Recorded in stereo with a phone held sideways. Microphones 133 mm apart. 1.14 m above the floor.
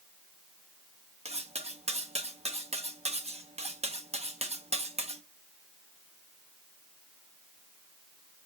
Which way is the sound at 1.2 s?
50° right (ahead or behind).